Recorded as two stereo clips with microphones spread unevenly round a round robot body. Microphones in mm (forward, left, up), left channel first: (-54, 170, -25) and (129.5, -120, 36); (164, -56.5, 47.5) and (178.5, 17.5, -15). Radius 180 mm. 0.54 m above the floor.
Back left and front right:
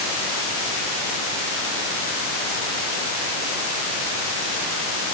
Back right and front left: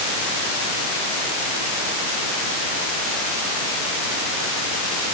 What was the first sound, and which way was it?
Only background noise.